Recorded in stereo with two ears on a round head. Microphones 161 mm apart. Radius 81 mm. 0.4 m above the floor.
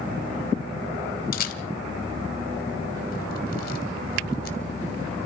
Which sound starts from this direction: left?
A camera shutter, at 1.3 s.